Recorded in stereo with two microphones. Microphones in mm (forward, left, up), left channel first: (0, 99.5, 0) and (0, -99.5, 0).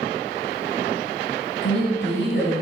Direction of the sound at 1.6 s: 65° left (ahead or behind).